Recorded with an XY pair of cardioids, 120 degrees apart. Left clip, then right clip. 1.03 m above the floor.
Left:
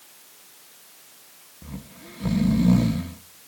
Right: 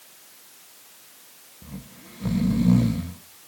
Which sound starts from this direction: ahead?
Snoring, at 1.6 s.